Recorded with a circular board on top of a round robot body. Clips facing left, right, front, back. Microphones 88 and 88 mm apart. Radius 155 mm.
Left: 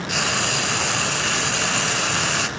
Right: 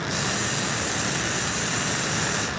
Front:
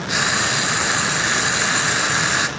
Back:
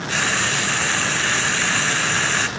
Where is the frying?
75° left, 0.7 m.